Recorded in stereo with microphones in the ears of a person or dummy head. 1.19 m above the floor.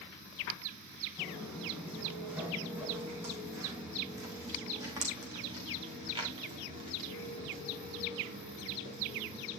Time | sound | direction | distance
1.2 | footsteps | 5° right (ahead or behind) | 3.5 m